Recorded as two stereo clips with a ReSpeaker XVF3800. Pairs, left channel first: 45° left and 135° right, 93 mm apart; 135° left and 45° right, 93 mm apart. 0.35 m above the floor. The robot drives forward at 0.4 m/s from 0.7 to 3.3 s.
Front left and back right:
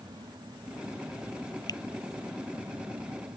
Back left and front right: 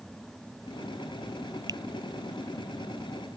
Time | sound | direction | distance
1.7 | a finger snap | straight ahead | ?